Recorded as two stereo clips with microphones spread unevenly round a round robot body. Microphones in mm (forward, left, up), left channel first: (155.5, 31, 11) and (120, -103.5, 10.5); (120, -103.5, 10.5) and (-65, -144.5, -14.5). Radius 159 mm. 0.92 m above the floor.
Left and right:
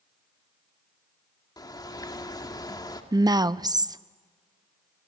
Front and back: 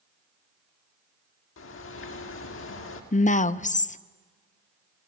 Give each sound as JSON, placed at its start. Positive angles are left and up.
{"t": 1.6, "sound": "a bird", "azimuth_deg": 15, "distance_m": 2.5}
{"t": 3.1, "sound": "a woman speaking", "azimuth_deg": -40, "distance_m": 1.0}